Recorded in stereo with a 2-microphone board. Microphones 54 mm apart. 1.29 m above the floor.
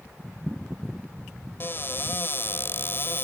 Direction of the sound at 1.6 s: 40° left (ahead or behind).